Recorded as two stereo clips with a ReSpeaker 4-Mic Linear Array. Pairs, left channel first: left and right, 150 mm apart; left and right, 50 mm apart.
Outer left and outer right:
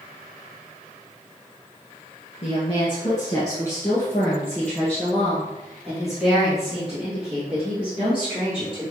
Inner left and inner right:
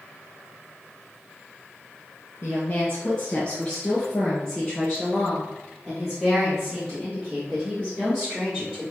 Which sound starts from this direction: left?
A woman speaking, at 2.4 s.